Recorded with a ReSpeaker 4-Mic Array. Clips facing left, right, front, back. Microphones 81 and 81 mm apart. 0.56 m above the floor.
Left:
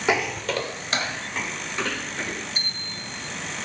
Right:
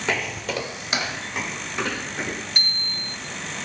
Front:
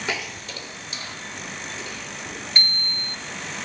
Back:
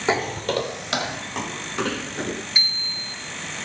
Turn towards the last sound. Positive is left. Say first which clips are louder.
# right 2 dB, front 2 dB
turn(degrees=-105)